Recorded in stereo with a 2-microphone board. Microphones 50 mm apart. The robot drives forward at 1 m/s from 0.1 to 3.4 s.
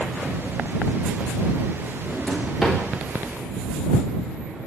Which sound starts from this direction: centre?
A drawer, at 2.1 s.